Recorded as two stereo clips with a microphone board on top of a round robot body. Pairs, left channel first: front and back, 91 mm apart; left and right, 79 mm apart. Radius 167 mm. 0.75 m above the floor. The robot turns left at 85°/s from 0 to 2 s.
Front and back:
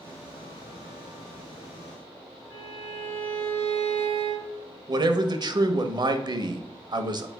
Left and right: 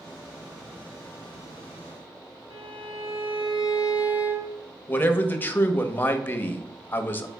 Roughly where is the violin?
Right.